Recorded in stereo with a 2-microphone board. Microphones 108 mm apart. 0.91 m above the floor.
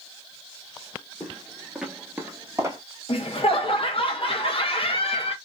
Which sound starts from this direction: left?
Laughter, at 3.1 s.